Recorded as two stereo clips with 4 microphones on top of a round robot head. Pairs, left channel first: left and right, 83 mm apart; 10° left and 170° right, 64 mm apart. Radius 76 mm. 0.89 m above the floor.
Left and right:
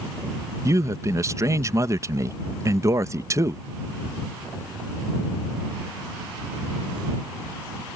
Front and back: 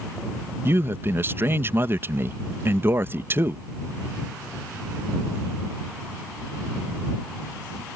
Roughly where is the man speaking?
Behind right.